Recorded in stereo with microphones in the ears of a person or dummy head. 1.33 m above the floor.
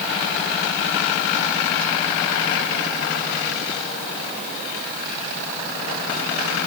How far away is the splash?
No splash in this recording.